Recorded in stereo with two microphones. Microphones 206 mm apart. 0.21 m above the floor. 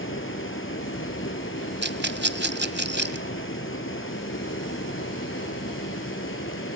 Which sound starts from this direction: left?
Running water, at 0.0 s.